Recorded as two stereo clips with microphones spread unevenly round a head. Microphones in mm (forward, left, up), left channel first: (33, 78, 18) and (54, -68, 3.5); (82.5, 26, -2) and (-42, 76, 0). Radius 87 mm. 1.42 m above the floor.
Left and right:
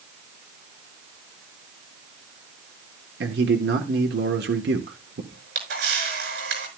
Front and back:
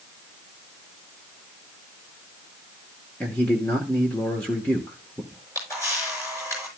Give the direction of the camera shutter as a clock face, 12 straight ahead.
3 o'clock.